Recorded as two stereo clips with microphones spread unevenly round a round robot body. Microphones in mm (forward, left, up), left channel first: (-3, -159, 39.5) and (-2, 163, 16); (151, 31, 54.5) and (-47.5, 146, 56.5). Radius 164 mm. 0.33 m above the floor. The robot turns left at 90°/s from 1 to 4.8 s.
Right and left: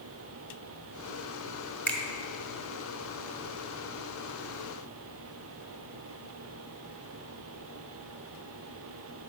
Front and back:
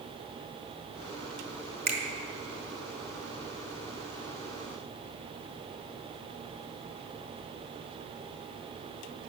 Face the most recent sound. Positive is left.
turn(degrees=-80)